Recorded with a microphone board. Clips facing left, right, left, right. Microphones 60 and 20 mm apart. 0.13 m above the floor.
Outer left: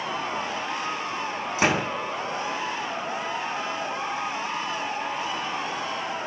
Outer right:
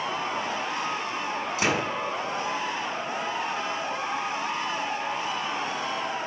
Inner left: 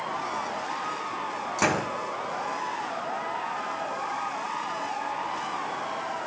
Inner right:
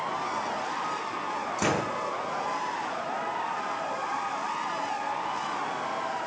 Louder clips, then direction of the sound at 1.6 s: Outer left 3 dB, inner left 3 dB; 30° left (ahead or behind).